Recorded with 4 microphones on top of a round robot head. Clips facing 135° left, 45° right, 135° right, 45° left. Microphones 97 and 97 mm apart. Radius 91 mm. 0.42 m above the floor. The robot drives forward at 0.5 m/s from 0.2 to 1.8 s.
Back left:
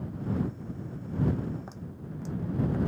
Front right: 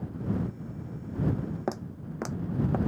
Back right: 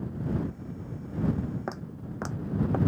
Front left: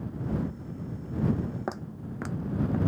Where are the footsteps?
40° right; by 2.8 s 85° right.